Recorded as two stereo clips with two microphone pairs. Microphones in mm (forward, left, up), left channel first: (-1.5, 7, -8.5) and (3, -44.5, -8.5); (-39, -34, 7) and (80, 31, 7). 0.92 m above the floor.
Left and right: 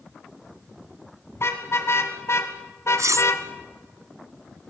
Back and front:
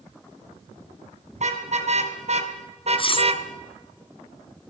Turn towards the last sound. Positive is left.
turn(degrees=-100)